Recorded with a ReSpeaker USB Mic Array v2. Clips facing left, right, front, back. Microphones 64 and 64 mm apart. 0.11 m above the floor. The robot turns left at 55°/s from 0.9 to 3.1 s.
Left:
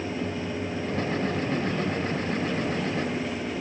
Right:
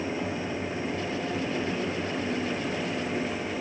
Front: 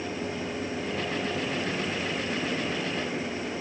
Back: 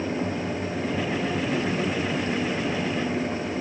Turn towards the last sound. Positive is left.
No sound to turn to.